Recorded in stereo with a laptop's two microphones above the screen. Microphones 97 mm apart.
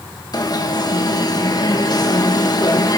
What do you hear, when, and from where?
0.3 s an alarm: 40° left (ahead or behind), 1.6 m